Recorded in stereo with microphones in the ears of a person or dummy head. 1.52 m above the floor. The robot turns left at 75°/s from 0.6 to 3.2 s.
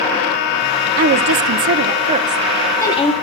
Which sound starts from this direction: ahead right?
A woman speaking, at 1.0 s.